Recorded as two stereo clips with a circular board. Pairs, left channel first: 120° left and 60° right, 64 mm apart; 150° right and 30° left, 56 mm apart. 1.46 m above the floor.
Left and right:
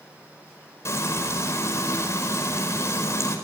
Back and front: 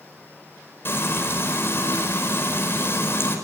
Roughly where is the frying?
Behind.